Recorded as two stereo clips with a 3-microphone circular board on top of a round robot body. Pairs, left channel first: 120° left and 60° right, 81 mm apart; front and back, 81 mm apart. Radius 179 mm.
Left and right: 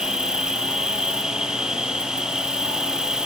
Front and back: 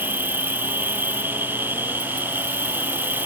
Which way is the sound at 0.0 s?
135° right.